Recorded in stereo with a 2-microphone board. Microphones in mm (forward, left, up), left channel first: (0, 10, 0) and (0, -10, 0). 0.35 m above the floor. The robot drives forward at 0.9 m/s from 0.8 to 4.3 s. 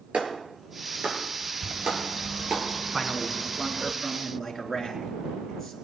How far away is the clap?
About 5 m.